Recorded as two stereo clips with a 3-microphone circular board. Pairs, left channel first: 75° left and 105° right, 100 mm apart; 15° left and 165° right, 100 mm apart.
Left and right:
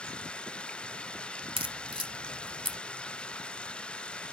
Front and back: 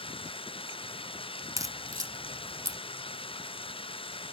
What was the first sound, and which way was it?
Running water, 5° right.